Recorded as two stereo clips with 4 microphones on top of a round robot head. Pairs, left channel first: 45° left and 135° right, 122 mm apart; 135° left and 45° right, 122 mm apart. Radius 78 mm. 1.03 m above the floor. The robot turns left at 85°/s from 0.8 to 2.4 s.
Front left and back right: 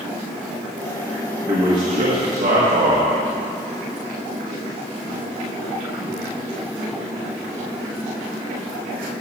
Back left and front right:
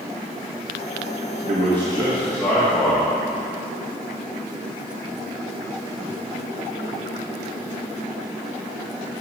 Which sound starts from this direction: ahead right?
A man speaking, at 1.4 s.